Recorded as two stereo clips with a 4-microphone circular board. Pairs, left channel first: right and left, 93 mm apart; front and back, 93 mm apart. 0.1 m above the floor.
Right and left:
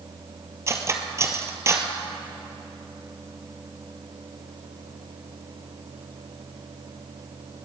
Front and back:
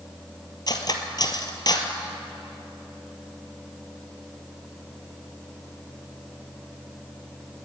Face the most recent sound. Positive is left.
turn(degrees=35)